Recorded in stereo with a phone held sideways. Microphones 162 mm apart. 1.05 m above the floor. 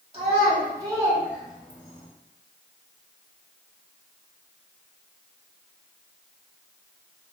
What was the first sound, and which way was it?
A child speaking, 35° right (ahead or behind).